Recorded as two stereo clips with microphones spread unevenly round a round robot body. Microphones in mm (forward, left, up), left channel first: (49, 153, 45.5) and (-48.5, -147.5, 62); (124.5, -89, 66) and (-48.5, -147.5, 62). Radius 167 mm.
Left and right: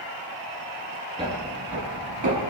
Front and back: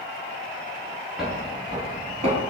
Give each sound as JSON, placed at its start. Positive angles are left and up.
{"t": 1.2, "sound": "footsteps", "azimuth_deg": -75, "distance_m": 0.8}